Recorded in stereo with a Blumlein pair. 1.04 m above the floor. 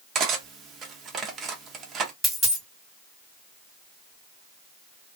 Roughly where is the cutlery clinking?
Ahead right.